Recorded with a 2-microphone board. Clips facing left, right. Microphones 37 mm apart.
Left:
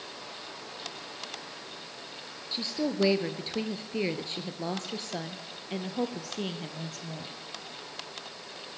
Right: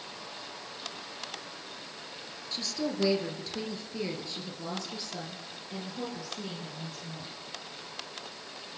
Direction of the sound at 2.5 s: 25° left (ahead or behind).